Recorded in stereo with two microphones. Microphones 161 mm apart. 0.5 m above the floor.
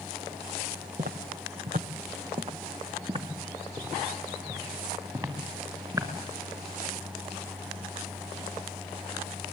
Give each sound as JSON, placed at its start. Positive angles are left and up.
{"t": 1.0, "sound": "footsteps", "side_deg": -60, "distance_m": 1.1}